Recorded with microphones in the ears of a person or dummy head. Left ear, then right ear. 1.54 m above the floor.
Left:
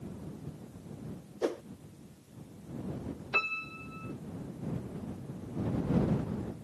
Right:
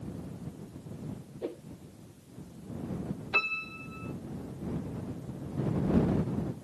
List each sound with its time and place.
1.4 s a whoosh: 45° left (ahead or behind)
3.3 s a piano: 5° right (ahead or behind)